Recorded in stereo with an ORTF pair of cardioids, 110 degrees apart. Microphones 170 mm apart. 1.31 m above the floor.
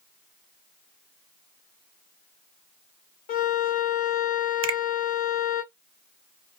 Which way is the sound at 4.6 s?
35° right.